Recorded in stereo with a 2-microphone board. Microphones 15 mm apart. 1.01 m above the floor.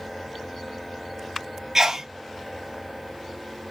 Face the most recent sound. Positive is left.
turn(degrees=-35)  # may be behind; listen again after turning